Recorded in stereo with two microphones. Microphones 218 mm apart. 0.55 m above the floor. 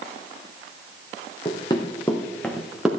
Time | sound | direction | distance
1.4 | running footsteps | 25° left (ahead or behind) | 2 m